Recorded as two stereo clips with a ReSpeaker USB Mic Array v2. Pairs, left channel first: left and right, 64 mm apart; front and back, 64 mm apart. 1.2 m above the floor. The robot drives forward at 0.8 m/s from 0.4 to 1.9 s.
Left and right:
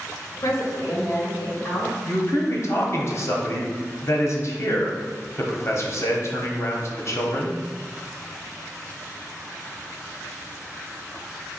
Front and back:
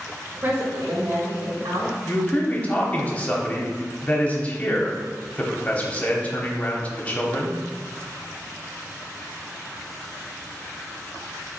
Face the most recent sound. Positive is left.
turn(degrees=65)